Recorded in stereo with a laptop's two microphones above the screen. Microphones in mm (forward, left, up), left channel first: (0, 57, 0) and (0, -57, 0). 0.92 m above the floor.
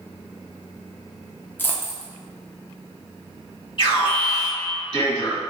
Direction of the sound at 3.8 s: 45° left (ahead or behind).